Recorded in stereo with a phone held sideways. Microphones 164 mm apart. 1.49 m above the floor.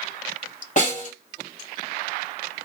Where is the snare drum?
50° left (ahead or behind), 3 m.